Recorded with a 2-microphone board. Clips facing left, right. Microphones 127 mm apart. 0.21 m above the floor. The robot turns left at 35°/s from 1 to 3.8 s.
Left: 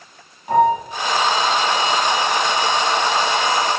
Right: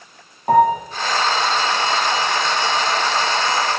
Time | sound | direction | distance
0.5 | a piano | 50° right (ahead or behind) | 4 m